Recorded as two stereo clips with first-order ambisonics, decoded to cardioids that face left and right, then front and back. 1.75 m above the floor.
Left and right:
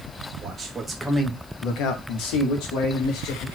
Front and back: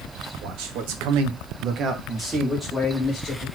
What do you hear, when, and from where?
0.4 s a man speaking: 160° right, 1.5 m; by 3.5 s 75° left, 2 m